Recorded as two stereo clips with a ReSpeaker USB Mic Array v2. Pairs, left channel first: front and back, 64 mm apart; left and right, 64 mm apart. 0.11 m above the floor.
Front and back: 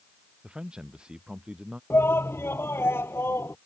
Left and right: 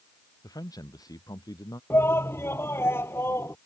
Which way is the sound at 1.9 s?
45° left.